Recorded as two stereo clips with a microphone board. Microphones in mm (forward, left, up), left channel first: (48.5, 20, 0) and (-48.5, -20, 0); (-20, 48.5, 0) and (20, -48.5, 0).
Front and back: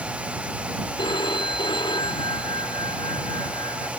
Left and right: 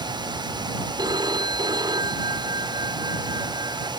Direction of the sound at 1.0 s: 20° right.